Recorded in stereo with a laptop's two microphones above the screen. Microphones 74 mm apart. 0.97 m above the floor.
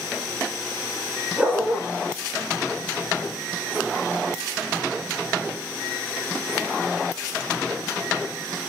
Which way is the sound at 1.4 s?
10° right (ahead or behind).